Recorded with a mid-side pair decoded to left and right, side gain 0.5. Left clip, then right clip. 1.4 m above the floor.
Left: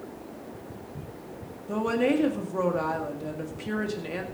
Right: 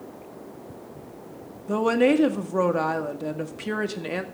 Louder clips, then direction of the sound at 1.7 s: Right 5 dB; 40° right.